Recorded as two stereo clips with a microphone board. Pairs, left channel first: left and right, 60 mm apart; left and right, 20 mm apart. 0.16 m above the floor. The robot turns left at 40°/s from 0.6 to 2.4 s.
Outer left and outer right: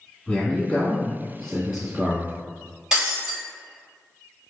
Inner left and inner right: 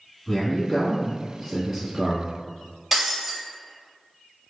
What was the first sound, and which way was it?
A man speaking, 45° left.